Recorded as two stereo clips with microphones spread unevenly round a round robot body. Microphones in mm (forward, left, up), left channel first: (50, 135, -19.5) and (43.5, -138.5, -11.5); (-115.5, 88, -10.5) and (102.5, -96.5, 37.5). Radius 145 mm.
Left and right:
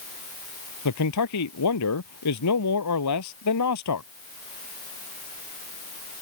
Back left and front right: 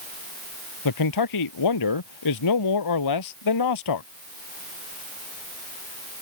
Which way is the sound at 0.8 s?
125° left.